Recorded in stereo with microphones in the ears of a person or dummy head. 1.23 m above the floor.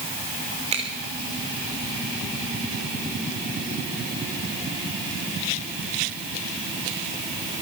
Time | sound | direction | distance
0.7 | a finger snap | 35° right (ahead or behind) | 3 m